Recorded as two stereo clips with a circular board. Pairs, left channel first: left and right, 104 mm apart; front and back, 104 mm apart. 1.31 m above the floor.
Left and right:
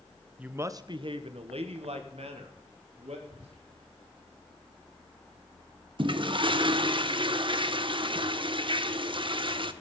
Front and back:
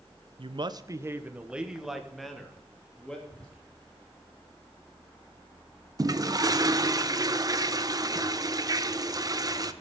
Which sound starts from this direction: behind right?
A toilet flushing, at 6.0 s.